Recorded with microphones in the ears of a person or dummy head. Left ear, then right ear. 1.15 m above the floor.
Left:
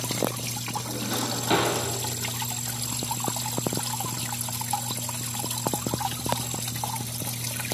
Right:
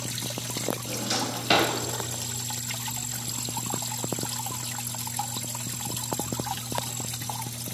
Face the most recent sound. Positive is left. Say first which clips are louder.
# left 1 dB
turn(degrees=-35)  # may be behind; listen again after turning